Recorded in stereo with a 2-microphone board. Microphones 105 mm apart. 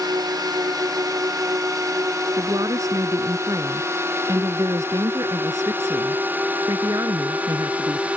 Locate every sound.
0.0 s a drone: 40° right (ahead or behind); by 8.2 s 10° right (ahead or behind)
2.4 s a woman speaking: 35° right (ahead or behind)